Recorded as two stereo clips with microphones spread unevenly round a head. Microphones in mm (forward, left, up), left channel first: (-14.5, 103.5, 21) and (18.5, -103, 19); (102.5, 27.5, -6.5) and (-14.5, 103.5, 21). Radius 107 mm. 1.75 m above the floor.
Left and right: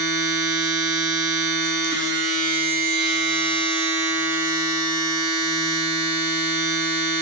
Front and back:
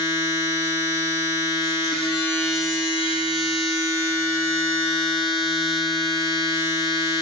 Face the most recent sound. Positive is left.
turn(degrees=-65)